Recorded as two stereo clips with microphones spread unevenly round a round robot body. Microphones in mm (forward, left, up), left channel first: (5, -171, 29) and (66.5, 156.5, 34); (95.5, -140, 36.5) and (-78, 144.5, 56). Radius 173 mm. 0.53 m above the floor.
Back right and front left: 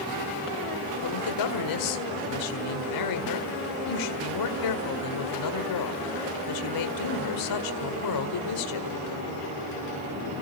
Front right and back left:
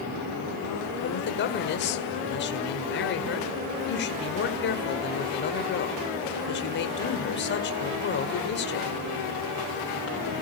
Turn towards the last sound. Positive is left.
turn(degrees=-115)